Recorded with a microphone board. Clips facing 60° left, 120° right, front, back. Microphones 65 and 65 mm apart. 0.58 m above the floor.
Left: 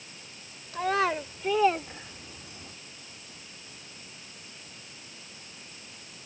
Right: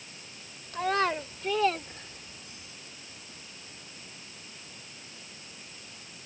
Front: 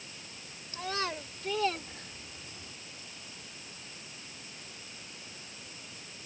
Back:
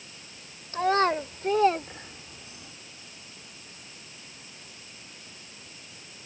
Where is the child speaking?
150° left; by 2.8 s 100° left.